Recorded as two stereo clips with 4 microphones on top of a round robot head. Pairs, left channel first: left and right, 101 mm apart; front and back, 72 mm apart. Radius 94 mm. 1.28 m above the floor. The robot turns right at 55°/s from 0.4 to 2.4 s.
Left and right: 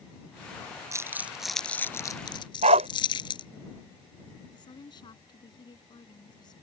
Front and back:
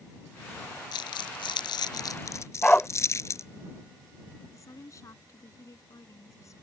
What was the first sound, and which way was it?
Crumpling, 35° right.